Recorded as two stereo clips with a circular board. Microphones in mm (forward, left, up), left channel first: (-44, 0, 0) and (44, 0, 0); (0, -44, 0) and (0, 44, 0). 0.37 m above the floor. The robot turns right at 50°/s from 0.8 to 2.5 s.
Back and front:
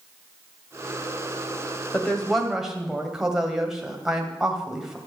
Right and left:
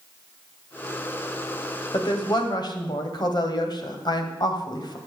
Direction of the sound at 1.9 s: 110° right.